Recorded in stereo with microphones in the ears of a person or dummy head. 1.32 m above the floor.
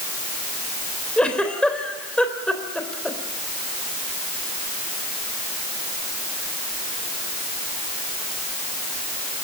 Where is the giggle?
5° left (ahead or behind), 3.5 m.